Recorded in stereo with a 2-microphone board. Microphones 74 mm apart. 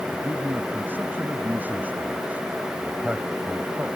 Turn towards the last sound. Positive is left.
turn(degrees=-15)  # may be behind; listen again after turning